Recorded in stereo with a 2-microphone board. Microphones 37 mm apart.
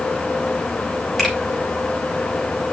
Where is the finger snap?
5° right (ahead or behind), 5 m.